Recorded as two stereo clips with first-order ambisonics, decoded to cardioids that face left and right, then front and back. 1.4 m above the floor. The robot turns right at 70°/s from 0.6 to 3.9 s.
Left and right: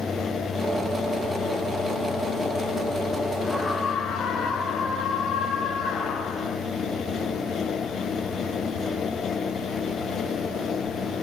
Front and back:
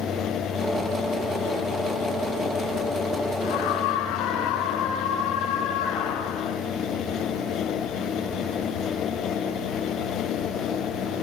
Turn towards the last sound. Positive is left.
turn(degrees=30)